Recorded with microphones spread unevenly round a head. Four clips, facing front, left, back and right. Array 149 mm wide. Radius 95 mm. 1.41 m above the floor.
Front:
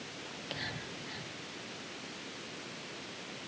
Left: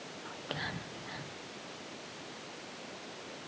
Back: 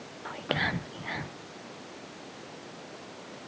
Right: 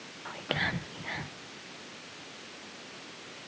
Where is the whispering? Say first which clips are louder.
Right 7 dB, back 13 dB; 145° right, 0.8 m.